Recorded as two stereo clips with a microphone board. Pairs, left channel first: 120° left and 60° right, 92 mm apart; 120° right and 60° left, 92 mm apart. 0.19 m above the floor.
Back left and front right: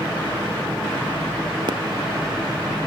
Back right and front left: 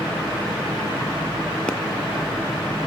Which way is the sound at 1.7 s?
40° right.